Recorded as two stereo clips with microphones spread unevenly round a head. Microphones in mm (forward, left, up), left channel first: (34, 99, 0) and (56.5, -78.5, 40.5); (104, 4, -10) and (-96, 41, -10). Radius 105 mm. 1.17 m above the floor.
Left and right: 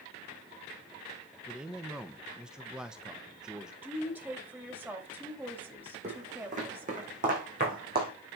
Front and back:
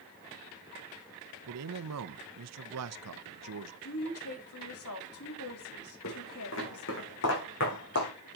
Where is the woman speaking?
Straight ahead, 3 m.